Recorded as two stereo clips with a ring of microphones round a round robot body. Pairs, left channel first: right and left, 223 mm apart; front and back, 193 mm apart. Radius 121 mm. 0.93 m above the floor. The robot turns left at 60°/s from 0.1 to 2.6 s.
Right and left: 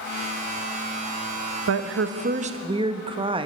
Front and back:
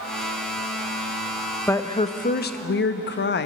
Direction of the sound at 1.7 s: 80° left.